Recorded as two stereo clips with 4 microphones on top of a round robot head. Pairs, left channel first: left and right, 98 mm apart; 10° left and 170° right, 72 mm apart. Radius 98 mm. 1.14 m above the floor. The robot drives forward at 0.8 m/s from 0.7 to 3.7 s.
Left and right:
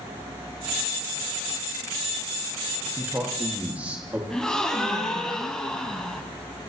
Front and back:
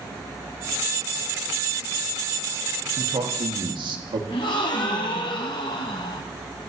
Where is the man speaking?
160° right, 1.5 m; by 4.2 s 165° right, 2 m.